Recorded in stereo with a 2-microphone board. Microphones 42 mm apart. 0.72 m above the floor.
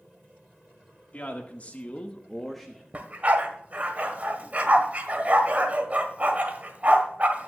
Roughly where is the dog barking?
Right.